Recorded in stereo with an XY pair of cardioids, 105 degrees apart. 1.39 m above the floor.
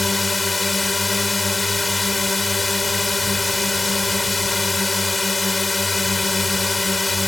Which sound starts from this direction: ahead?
A drone, at 0.0 s.